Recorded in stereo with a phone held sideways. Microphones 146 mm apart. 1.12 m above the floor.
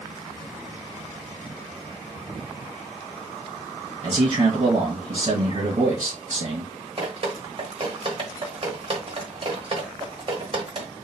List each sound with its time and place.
4.0 s a man speaking: 55° right (ahead or behind), 1.4 m
7.0 s dripping: 45° right (ahead or behind), 1.1 m